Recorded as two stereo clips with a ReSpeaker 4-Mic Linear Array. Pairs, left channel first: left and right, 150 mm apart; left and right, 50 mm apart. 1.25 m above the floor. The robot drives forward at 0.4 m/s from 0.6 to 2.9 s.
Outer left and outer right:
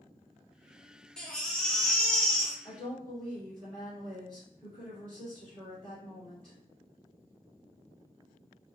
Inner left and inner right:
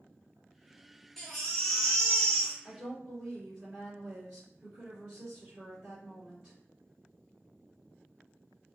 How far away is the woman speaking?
About 1.9 m.